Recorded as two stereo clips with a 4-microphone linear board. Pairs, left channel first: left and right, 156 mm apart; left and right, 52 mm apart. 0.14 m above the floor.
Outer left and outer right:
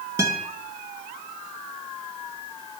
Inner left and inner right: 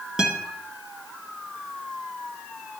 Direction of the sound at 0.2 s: 20° right (ahead or behind).